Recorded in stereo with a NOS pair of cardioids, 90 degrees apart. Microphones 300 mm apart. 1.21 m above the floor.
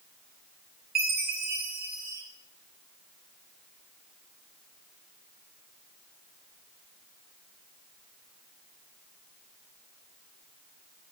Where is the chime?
30° right, 2.0 m.